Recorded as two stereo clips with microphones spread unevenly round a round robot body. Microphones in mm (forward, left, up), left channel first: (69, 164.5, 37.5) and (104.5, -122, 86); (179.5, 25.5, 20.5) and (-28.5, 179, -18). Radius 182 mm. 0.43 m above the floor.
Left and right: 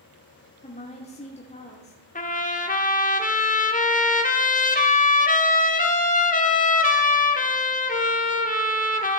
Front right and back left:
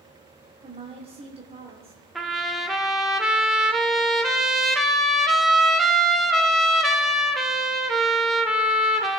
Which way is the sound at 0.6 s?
115° left.